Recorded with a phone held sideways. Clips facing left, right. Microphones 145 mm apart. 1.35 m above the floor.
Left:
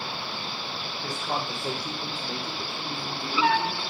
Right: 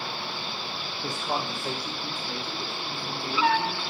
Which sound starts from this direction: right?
A man speaking, at 1.0 s.